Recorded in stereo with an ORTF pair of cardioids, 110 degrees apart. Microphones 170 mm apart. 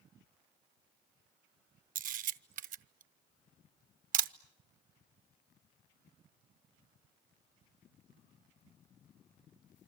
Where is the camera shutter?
55° right, 0.8 m.